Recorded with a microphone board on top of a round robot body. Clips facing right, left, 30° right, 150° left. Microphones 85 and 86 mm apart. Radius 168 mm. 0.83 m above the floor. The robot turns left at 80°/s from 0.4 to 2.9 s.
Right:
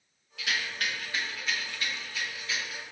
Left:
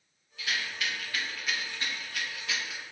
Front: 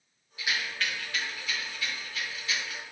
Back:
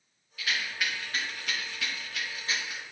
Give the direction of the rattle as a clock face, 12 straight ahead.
3 o'clock.